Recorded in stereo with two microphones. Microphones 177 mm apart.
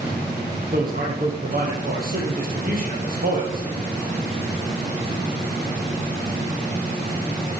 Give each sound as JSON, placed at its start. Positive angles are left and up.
{"t": 0.7, "sound": "a man speaking", "side_deg": -55, "distance_m": 3.0}